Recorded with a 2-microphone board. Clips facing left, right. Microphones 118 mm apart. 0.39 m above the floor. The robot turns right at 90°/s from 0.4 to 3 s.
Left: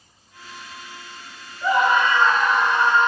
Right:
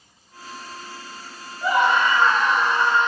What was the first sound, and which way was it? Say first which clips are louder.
A scream: left 1 dB; 10° right.